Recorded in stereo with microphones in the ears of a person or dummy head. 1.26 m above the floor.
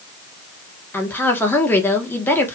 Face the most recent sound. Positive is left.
turn(degrees=15)  # may be behind; listen again after turning